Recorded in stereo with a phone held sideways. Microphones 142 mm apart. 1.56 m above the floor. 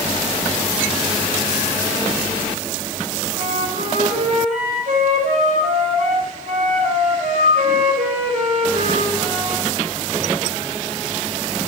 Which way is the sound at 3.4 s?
65° right (ahead or behind).